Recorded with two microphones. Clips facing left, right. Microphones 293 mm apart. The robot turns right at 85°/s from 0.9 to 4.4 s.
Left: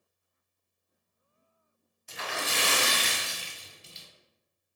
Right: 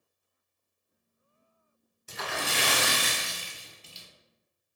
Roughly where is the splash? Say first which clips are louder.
Right 1 dB; behind right.